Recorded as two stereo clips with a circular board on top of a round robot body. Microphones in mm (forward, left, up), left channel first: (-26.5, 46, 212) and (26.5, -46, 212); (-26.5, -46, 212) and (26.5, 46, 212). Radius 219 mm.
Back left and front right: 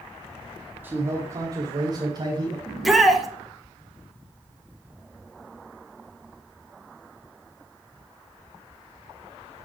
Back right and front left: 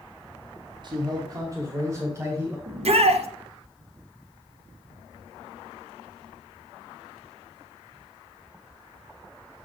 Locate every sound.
0.8 s a man speaking: 15° left, 1.1 m; by 2.6 s 10° right, 2.5 m
2.7 s a shout: 30° left, 1.1 m